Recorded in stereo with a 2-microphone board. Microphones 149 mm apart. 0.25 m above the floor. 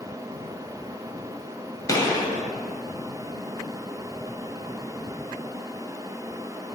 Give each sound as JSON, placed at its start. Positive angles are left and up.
{"t": 1.9, "sound": "a gunshot", "side_deg": 25, "distance_m": 1.4}